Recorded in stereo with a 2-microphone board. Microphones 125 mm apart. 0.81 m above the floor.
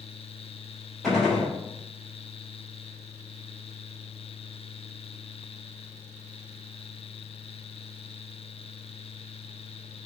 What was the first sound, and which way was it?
A gunshot, 5° left (ahead or behind).